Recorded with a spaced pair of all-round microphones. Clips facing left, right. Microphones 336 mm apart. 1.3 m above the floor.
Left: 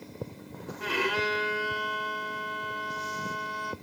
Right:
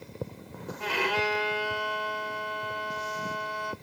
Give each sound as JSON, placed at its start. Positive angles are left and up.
{"t": 0.8, "sound": "a violin", "side_deg": 25, "distance_m": 2.5}